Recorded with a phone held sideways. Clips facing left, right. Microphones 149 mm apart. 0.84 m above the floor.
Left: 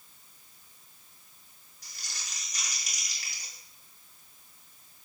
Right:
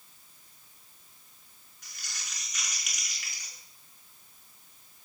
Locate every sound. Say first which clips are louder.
1.8 s crumpling: even; 35° left (ahead or behind), 5.5 m